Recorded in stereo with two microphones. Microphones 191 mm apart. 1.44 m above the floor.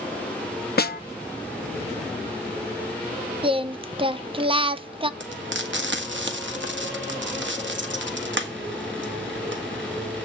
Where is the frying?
75° right (ahead or behind), 1.8 m.